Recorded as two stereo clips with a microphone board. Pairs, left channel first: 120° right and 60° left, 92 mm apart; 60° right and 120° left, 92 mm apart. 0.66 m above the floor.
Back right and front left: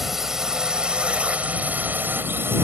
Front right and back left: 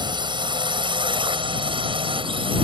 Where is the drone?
150° left; by 2.6 s 125° left.